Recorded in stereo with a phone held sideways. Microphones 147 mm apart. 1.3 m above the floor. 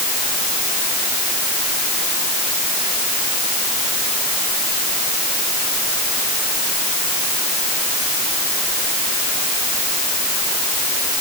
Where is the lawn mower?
No lawn mower in this recording.